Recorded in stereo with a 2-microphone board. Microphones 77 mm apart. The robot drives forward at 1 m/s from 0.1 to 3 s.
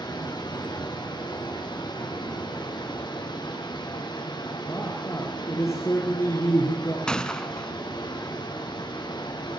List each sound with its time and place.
0.0 s running water: 75° left (ahead or behind), 8.5 m; by 9.6 s 85° left, 8 m
4.7 s a man speaking: 40° left (ahead or behind), 4.5 m
7.1 s a gunshot: 10° left (ahead or behind), 0.8 m